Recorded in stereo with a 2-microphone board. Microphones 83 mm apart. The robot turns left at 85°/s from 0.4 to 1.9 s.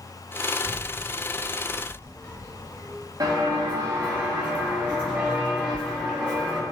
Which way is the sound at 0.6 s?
40° right (ahead or behind).